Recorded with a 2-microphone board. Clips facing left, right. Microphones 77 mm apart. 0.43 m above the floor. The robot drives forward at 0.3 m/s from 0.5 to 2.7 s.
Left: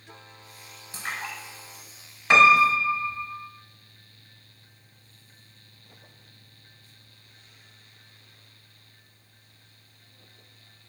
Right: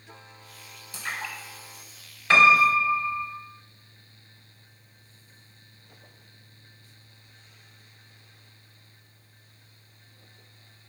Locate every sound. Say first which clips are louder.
0.9 s a splash: even; 35° left (ahead or behind), 2.0 m; by 2.7 s 30° left (ahead or behind), 2.5 m
2.3 s a piano: left 1 dB; 20° left (ahead or behind), 0.7 m